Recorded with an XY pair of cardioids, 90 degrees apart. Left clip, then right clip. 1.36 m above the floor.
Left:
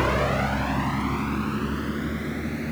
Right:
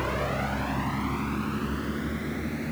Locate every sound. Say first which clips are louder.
0.0 s a vehicle: left 6 dB; 55° left; by 2.7 s 20° left